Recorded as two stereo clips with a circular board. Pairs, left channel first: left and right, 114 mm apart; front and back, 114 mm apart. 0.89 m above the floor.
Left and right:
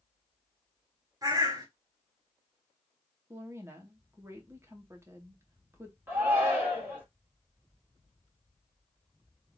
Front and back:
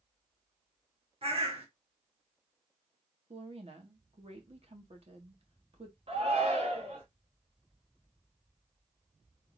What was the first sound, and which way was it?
A bird, 150° right.